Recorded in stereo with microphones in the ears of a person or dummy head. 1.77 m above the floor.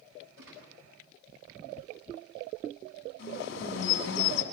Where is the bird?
70° left (ahead or behind), 5 m.